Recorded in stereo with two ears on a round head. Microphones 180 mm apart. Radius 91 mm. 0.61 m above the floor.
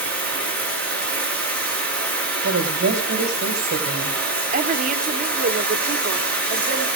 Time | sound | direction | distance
0.0 | running water | 5° left (ahead or behind) | 7 m
2.4 | a woman speaking | 50° right (ahead or behind) | 2.5 m
4.5 | a woman speaking | 35° right (ahead or behind) | 1.2 m